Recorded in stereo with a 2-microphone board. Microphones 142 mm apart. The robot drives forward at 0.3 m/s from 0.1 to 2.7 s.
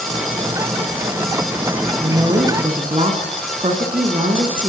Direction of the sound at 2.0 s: 45° right (ahead or behind).